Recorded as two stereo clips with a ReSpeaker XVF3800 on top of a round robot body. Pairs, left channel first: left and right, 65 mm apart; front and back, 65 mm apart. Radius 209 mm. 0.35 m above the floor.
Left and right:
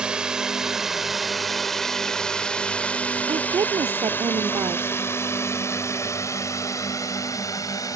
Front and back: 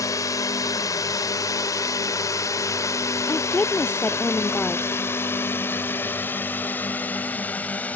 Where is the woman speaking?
70° right.